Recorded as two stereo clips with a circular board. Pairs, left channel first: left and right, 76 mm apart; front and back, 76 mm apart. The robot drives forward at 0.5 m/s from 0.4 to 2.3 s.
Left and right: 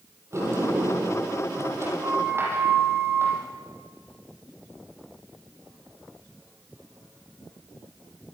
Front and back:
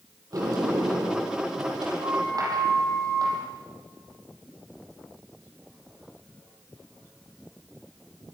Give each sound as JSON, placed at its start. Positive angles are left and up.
{"t": 0.3, "sound": "a sliding door", "azimuth_deg": -140, "distance_m": 7.0}